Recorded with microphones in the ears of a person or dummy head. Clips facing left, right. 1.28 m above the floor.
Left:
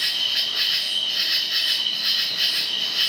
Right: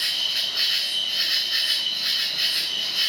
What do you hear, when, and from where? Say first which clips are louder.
0.0 s an insect: left 1 dB; 30° left (ahead or behind), 0.8 m